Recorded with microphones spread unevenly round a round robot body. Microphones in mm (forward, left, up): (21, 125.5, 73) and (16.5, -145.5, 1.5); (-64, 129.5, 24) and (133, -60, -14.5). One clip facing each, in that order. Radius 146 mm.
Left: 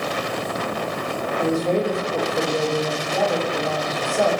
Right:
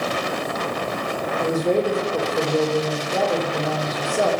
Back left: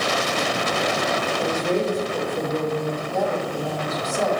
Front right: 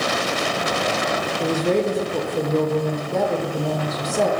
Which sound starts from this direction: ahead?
A woman speaking, at 1.4 s.